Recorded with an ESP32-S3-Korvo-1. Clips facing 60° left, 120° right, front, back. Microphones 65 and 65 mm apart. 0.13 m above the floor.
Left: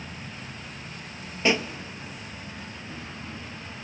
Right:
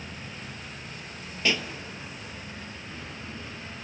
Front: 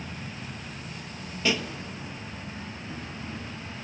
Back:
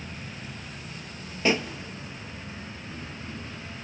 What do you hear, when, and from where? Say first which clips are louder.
0.0 s an insect: left 1 dB, front 1 dB; 10° right, 7.5 m
1.4 s a pop: left 4 dB, back 3 dB; 125° left, 1.0 m